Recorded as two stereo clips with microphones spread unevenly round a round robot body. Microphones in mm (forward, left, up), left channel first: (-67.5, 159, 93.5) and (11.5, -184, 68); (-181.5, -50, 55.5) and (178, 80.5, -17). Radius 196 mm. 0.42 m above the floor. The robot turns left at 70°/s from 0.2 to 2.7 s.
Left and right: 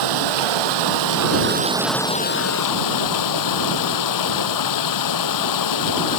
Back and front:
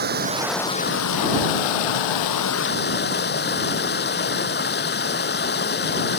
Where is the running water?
50° right; by 6.2 s 135° left.